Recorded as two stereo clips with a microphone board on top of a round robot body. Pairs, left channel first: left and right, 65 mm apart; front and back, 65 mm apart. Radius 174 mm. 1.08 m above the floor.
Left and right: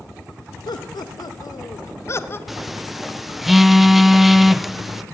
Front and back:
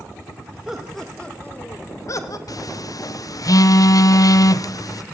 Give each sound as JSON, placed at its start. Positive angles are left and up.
{"t": 0.7, "sound": "laughter", "azimuth_deg": 100, "distance_m": 1.7}
{"t": 2.5, "sound": "a phone buzzing", "azimuth_deg": -5, "distance_m": 1.1}